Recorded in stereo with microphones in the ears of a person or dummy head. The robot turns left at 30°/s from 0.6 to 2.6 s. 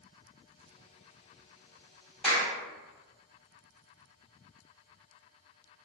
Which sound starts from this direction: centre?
A clap, at 2.2 s.